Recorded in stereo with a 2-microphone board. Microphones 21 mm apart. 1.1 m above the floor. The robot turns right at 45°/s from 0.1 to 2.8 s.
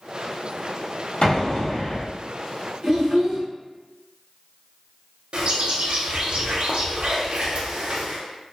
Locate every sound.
1.2 s an explosion: 115° left, 1.2 m; by 2.1 s 155° left, 1.2 m
2.8 s a child speaking: 55° right (ahead or behind), 1.2 m
5.3 s a bird: 65° right (ahead or behind), 0.6 m